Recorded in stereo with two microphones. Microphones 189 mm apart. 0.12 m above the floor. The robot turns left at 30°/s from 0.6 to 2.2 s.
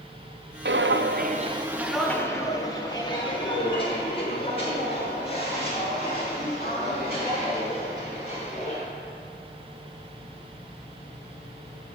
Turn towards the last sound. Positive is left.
turn(degrees=35)  # may be behind; listen again after turning